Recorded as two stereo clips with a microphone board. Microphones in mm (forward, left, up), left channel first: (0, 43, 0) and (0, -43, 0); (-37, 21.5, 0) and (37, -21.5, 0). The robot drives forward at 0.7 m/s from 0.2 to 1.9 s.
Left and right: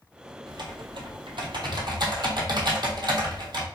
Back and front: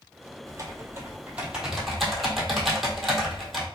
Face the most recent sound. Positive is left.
turn(degrees=-120)